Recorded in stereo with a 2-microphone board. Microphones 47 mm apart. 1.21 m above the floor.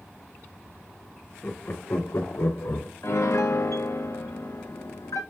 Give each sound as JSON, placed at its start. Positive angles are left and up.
{"t": 1.4, "sound": "laughter", "side_deg": 40, "distance_m": 1.2}
{"t": 3.0, "sound": "a piano", "side_deg": 85, "distance_m": 0.8}